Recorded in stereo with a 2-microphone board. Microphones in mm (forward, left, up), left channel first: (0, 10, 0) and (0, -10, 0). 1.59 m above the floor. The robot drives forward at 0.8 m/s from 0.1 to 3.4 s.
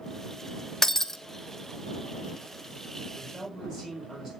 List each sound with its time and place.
0.8 s breaking glass: 20° left (ahead or behind), 0.7 m; by 1.2 s 15° left (ahead or behind), 0.8 m
3.1 s a man speaking: 10° right (ahead or behind), 8 m